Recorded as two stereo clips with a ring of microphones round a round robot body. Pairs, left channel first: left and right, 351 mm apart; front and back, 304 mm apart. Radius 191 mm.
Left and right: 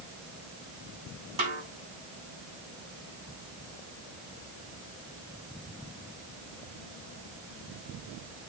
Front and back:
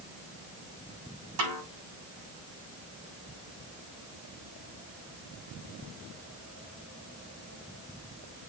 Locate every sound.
1.4 s a snare drum: 160° right, 6.5 m